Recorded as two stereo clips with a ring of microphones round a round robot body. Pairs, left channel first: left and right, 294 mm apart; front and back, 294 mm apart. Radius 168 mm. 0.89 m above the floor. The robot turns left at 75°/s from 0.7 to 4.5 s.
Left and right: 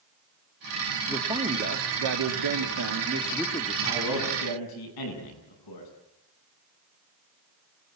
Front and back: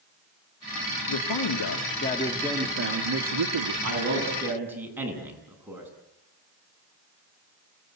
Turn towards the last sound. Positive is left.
turn(degrees=95)